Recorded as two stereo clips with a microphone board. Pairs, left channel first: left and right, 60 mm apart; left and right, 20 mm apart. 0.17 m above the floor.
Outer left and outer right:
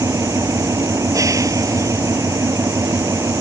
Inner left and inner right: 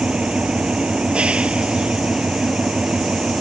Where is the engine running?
70° right (ahead or behind).